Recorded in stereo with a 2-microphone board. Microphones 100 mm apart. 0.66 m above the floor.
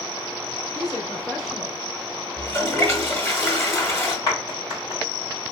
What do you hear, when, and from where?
0.8 s a woman speaking: 45° left (ahead or behind), 1.5 m; by 1.8 s 25° right (ahead or behind), 1.2 m
2.4 s a toilet flushing: 25° left (ahead or behind), 1.0 m
4.3 s a clap: 40° left (ahead or behind), 2 m